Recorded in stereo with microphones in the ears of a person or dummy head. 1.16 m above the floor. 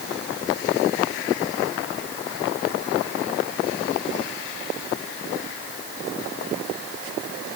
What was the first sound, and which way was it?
Only background noise.